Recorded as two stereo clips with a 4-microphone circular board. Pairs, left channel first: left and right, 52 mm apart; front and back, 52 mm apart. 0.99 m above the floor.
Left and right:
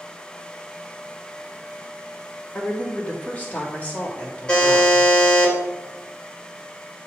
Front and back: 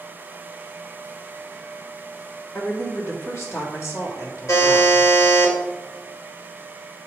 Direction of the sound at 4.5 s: 20° left.